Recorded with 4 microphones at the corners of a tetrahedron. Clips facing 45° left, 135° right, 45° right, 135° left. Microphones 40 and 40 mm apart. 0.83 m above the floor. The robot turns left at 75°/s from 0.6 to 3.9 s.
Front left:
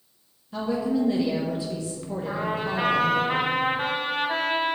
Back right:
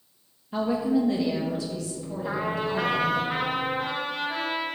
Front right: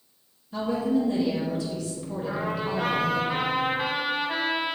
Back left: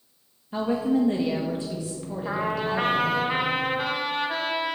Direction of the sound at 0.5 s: 175° left.